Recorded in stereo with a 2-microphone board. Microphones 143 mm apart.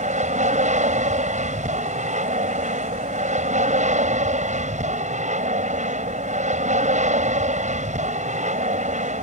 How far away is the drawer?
I don't hear a drawer.